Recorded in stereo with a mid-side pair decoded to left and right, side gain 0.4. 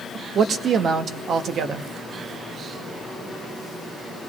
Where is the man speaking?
65° right, 1.1 m.